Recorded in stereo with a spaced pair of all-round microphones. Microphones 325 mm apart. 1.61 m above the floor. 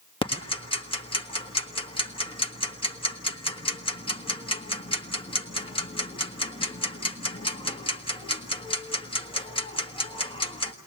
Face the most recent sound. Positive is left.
turn(degrees=15)  # may be behind; listen again after turning